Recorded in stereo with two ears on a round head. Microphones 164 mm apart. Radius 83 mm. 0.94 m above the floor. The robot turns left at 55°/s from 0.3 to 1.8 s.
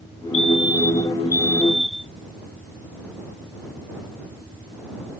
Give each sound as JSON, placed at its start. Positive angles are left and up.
{"t": 0.3, "sound": "a fire alarm", "azimuth_deg": 80}